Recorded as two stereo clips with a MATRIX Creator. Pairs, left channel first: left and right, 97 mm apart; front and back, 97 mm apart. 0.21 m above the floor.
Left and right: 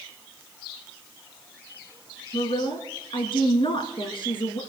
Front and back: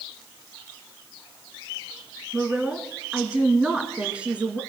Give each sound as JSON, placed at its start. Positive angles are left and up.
{"t": 2.3, "sound": "a woman speaking", "azimuth_deg": 105, "distance_m": 2.5}